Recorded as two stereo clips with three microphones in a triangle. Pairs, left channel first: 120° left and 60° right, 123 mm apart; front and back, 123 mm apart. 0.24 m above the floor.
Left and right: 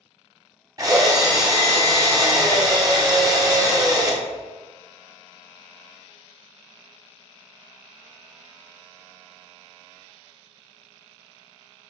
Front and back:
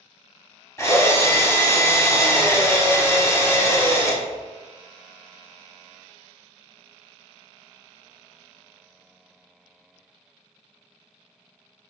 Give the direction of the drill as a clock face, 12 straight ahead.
1 o'clock.